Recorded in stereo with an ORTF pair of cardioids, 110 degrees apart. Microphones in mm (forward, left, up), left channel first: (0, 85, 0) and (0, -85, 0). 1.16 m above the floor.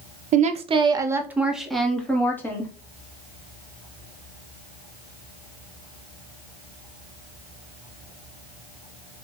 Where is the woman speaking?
50° right, 0.8 m; by 2.7 s 15° left, 1.6 m.